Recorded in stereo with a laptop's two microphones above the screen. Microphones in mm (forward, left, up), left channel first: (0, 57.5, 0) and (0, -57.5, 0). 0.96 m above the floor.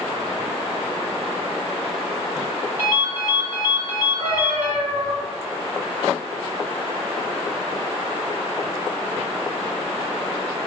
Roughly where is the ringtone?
Right.